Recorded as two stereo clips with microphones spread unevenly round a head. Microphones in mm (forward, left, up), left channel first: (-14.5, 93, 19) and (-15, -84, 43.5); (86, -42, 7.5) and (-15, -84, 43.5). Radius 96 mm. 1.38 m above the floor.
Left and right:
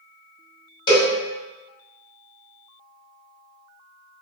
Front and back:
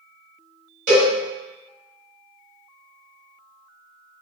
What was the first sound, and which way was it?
A cowbell, 155° left.